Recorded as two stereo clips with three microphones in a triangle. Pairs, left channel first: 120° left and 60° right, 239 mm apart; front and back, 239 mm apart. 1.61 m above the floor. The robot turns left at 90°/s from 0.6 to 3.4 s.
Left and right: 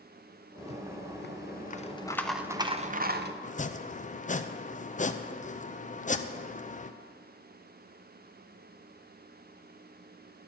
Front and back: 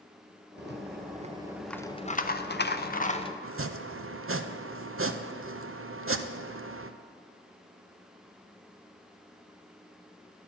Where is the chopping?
175° left, 0.5 m.